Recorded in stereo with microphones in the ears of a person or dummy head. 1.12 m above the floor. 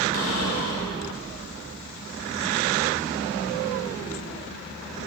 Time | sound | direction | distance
0.1 | a cupboard door | 85° left | 2.5 m